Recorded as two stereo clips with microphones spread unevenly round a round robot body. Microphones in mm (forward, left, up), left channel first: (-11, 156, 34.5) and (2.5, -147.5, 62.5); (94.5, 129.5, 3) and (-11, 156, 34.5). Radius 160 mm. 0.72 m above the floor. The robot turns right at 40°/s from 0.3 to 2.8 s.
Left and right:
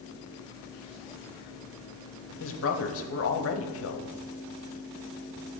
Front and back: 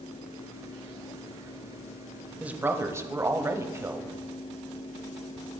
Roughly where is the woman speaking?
Left.